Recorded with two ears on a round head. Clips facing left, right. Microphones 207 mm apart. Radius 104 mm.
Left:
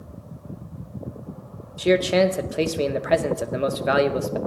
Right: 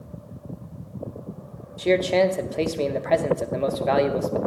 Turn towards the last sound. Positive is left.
turn(degrees=10)  # may be behind; listen again after turning